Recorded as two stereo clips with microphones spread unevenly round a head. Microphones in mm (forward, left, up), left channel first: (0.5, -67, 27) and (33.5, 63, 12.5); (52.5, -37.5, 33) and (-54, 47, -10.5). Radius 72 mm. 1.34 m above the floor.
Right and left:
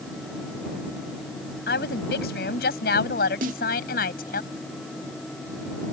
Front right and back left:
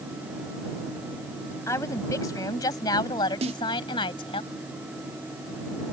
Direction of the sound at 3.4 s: 100° left.